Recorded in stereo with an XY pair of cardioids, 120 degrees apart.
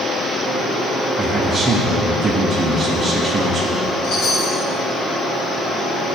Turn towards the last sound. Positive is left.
turn(degrees=60)